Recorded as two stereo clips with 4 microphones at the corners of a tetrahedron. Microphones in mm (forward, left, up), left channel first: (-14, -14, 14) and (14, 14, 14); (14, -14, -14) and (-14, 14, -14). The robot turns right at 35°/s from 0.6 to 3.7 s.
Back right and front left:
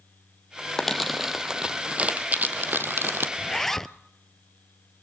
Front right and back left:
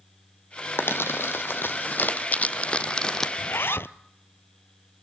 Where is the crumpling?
55° right, 1.1 m; by 3.3 s 30° left, 1.1 m.